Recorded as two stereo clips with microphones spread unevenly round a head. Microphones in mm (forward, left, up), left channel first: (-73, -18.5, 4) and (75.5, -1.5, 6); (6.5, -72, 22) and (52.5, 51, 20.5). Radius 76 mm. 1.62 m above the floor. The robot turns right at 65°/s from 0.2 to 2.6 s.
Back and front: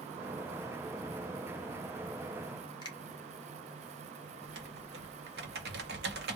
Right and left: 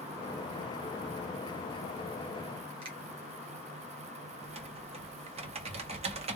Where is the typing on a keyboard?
30° left, 1.0 m.